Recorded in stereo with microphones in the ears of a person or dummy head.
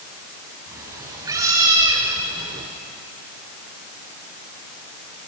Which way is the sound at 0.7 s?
15° right (ahead or behind).